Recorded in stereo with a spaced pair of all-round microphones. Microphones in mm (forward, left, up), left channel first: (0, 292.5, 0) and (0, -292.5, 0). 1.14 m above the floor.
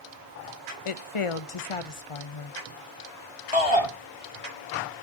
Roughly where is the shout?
Left.